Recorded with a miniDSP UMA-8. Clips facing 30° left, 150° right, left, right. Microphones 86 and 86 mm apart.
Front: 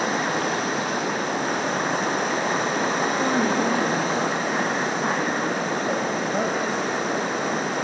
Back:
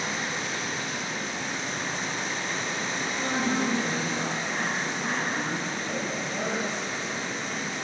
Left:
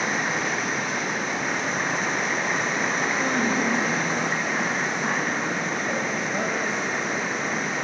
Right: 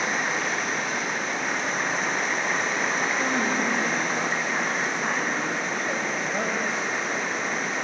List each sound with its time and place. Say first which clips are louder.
0.0 s running water: front 8 dB, left 1 dB; straight ahead, 1.9 m
3.2 s a woman speaking: front 3 dB, left 3 dB; 5° right, 5.5 m